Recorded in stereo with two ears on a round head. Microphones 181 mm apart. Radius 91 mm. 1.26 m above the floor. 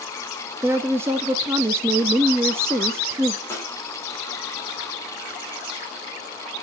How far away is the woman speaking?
About 0.7 m.